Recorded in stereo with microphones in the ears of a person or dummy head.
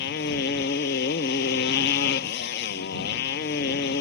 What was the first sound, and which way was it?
A motorcycle, 65° left (ahead or behind).